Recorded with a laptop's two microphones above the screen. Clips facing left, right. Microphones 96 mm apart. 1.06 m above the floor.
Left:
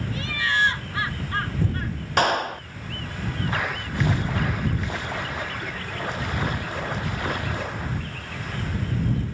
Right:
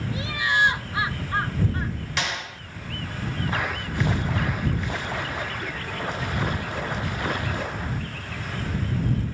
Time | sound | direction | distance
0.1 | laughter | 15° right (ahead or behind) | ?
2.2 | a clap | 50° left (ahead or behind) | ?